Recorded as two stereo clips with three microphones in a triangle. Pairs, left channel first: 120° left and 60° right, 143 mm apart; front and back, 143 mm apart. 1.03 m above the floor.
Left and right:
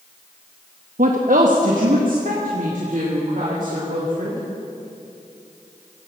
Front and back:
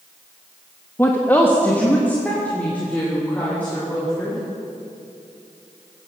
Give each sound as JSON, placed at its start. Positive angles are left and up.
{"t": 1.0, "sound": "a woman speaking", "azimuth_deg": -75, "distance_m": 1.0}